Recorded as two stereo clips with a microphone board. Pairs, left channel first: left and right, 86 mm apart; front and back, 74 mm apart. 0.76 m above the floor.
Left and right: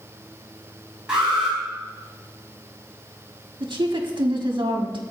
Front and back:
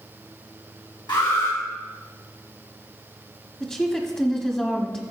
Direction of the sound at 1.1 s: 10° right.